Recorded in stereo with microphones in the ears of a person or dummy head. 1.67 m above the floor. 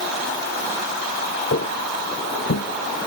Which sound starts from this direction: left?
Footsteps, at 1.5 s.